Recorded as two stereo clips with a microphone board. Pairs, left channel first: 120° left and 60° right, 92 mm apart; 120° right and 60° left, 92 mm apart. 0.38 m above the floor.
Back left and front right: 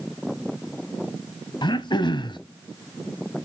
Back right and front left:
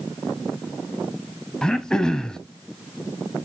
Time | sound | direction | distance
1.6 | throat clearing | 155° left | 0.9 m